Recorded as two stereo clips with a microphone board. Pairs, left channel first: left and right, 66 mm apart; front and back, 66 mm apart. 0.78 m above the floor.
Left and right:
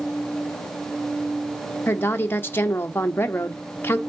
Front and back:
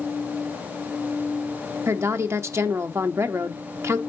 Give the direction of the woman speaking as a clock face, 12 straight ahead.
7 o'clock.